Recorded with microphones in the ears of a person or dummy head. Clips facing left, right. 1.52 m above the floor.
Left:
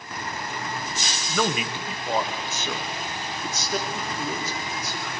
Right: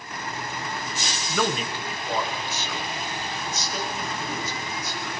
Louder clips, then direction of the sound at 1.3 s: Even; 5° right (ahead or behind).